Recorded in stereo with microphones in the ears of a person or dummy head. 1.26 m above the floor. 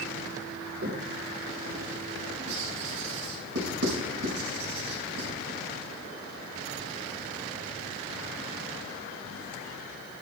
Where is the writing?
70° right (ahead or behind), 5.5 m.